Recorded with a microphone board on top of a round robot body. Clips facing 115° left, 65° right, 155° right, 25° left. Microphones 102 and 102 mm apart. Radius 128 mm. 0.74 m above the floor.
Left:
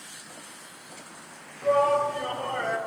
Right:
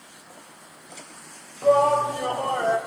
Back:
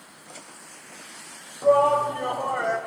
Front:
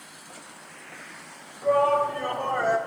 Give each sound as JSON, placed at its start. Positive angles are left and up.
{"t": 1.6, "sound": "a shout", "azimuth_deg": -115, "distance_m": 1.6}